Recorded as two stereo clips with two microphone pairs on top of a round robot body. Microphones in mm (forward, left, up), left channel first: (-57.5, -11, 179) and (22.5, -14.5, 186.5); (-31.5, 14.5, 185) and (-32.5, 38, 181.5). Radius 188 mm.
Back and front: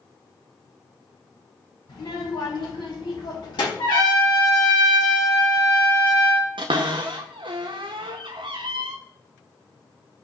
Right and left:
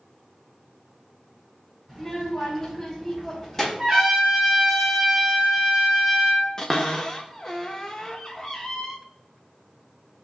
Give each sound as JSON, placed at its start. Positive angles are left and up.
{"t": 1.9, "sound": "a child speaking", "azimuth_deg": -170, "distance_m": 5.5}
{"t": 3.8, "sound": "a trumpet", "azimuth_deg": 170, "distance_m": 5.5}
{"t": 6.6, "sound": "a cupboard door", "azimuth_deg": -20, "distance_m": 0.5}